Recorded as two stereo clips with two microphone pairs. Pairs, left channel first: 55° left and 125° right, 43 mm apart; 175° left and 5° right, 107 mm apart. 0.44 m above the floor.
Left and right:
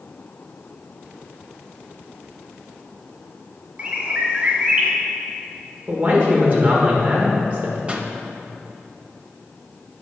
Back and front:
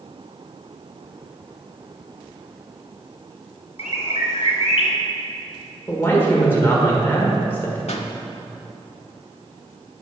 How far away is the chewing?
I don't hear chewing.